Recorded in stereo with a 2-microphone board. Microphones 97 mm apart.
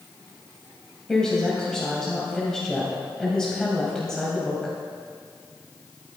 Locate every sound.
1.1 s a woman speaking: 5° left (ahead or behind), 3 m